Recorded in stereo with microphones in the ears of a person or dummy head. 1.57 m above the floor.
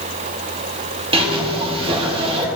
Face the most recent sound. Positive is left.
turn(degrees=-30)  # may be behind; listen again after turning